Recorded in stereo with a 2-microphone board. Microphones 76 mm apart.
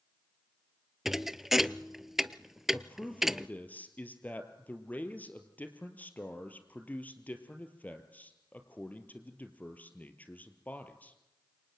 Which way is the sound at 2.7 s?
20° left (ahead or behind).